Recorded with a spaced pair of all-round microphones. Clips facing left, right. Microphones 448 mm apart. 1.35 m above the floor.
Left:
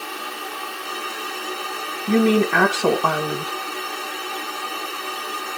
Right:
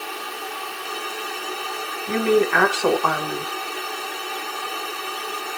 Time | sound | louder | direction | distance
0.0 | a fan | even | 35° left (ahead or behind) | 1.9 m
2.1 | a woman speaking | left 2 dB | 55° left (ahead or behind) | 1.0 m